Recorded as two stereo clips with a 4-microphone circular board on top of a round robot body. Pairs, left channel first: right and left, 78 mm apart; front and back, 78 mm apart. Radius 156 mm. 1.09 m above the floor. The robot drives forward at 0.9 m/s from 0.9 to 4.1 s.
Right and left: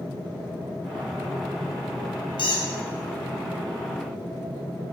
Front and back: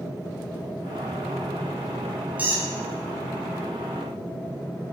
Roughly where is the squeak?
Right.